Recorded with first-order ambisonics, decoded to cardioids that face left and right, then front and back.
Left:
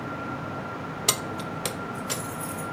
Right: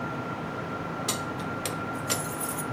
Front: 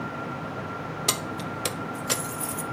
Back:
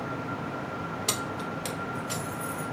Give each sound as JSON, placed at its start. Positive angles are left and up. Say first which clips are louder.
{"t": 1.1, "sound": "keys jangling", "louder": "left 7 dB, front 3 dB", "azimuth_deg": 65, "distance_m": 0.8}